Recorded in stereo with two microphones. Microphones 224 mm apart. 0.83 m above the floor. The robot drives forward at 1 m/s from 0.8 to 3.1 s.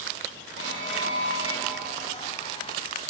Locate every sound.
0.6 s an alarm: 55° left (ahead or behind), 9.5 m; by 2.2 s 60° left (ahead or behind), 9 m